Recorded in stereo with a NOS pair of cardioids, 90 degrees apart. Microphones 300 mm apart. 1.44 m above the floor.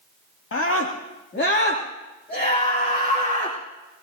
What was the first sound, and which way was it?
A scream, 45° left.